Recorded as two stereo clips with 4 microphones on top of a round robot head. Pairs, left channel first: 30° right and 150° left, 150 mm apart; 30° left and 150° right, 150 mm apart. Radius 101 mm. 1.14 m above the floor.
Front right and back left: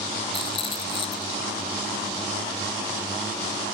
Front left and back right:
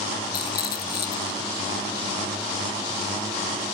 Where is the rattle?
25° left, 1.7 m.